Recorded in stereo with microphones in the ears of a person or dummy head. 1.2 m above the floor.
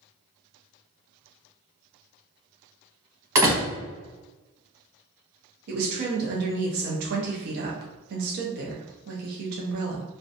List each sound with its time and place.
3.4 s a door slam: 15° right (ahead or behind), 0.7 m
5.7 s a woman speaking: 55° right (ahead or behind), 0.6 m